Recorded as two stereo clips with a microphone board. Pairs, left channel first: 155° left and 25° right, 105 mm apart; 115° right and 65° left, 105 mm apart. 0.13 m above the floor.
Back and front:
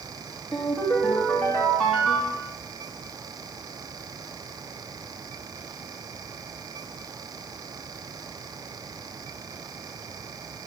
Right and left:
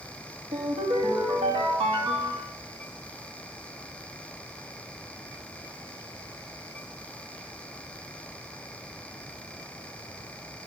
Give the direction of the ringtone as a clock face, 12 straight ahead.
10 o'clock.